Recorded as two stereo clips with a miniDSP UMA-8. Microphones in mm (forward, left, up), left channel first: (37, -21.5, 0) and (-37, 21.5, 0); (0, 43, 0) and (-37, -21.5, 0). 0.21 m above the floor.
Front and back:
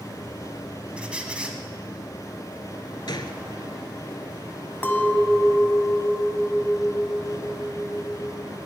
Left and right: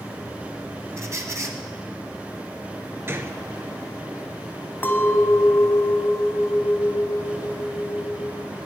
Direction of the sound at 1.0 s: 140° right.